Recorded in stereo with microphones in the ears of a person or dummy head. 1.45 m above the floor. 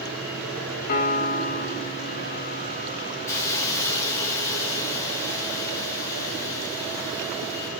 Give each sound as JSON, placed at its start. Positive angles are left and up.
{"t": 0.9, "sound": "a piano", "side_deg": 45, "distance_m": 2.5}
{"t": 3.3, "sound": "a hiss", "side_deg": 15, "distance_m": 1.3}